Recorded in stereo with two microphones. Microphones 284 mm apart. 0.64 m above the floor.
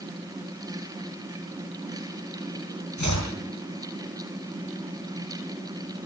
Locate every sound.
3.0 s chopping: 75° left (ahead or behind), 9.5 m